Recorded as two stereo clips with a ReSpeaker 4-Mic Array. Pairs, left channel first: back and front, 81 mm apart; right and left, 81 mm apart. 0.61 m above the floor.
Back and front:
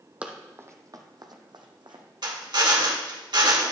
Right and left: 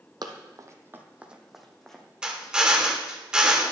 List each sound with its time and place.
0.2 s running footsteps: 75° left, 1.1 m; by 2.0 s 5° right, 1.6 m
2.2 s a drill: 15° left, 1.3 m